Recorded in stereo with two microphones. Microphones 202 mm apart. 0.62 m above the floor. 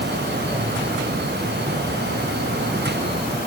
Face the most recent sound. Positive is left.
No sound to turn to.